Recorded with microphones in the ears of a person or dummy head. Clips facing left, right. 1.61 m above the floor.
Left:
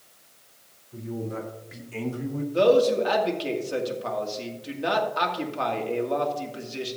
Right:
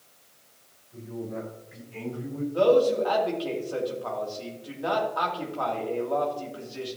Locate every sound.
0.9 s a man speaking: 85° left, 4 m; by 2.4 s 60° left (ahead or behind), 1.7 m
2.5 s a man speaking: 30° left (ahead or behind), 2.5 m